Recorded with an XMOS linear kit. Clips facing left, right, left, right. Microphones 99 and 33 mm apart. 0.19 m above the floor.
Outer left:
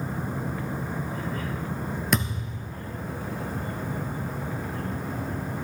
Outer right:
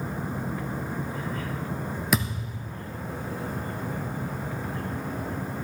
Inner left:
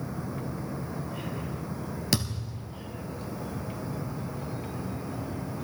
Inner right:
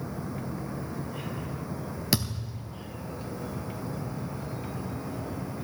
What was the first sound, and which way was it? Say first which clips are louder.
A thud: outer right 1 dB, inner right 1 dB; 5° right (ahead or behind).